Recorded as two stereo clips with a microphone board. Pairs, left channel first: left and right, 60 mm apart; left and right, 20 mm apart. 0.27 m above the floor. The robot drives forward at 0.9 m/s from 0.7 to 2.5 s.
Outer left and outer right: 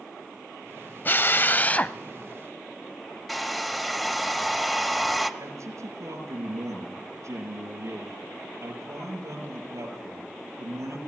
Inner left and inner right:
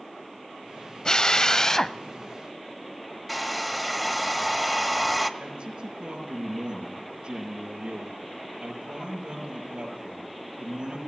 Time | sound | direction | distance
1.1 | a drill | 35° left (ahead or behind) | 0.5 m
3.3 | a hair dryer | centre (ahead or behind) | 1.3 m
5.4 | a man speaking | 60° right (ahead or behind) | 6 m